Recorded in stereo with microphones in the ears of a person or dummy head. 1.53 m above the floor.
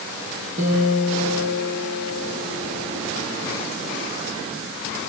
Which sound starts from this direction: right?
A guitar, at 0.6 s.